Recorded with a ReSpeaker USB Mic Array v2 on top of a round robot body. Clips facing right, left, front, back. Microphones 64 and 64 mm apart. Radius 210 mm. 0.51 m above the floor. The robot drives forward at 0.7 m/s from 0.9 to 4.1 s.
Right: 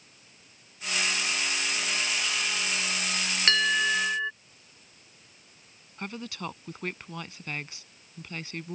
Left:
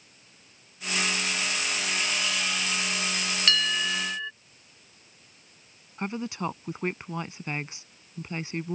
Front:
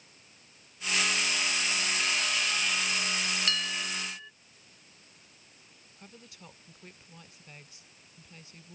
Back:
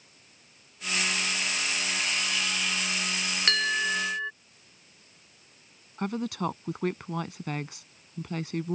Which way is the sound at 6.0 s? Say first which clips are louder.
Left 5 dB, back 22 dB; 160° left.